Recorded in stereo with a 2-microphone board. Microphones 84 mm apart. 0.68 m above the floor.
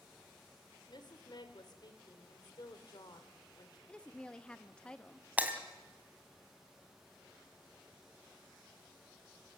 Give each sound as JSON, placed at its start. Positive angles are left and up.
{"t": 0.9, "sound": "a woman speaking", "side_deg": 55, "distance_m": 2.5}
{"t": 3.9, "sound": "a woman speaking", "side_deg": 10, "distance_m": 0.8}
{"t": 5.4, "sound": "breaking glass", "side_deg": -20, "distance_m": 2.0}